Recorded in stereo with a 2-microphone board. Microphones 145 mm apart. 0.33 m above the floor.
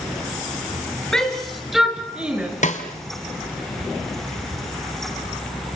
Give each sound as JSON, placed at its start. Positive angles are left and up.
{"t": 1.1, "sound": "a shout", "side_deg": 5, "distance_m": 5.5}
{"t": 2.6, "sound": "a snare drum", "side_deg": 55, "distance_m": 2.0}